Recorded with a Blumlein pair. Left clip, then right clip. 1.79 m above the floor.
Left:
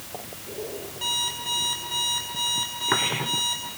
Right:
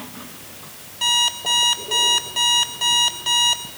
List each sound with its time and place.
1.0 s an alarm clock: 65° right, 3 m